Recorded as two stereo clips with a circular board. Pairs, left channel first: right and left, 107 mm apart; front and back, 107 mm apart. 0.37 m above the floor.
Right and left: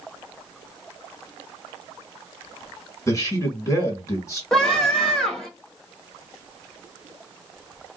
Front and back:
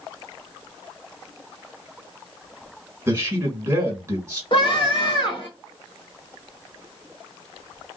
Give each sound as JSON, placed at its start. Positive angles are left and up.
{"t": 3.1, "sound": "a man speaking", "azimuth_deg": -130, "distance_m": 1.5}
{"t": 4.5, "sound": "a scream", "azimuth_deg": -5, "distance_m": 1.3}